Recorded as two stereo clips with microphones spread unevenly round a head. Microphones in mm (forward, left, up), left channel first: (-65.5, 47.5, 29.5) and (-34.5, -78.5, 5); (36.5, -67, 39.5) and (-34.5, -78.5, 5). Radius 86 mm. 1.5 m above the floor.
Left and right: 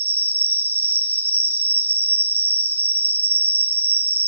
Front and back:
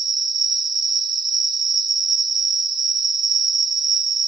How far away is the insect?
About 1.1 m.